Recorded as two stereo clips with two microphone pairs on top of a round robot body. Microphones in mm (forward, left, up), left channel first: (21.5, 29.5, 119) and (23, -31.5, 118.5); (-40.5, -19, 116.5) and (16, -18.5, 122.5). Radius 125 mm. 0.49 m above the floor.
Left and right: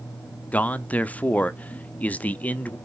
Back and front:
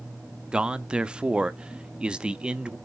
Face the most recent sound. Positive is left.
turn(degrees=65)